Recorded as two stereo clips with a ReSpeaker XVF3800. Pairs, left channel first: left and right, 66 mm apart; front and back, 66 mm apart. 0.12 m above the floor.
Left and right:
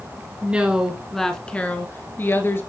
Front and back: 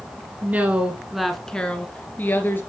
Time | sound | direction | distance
0.4 | a woman speaking | 145° right | 1.5 m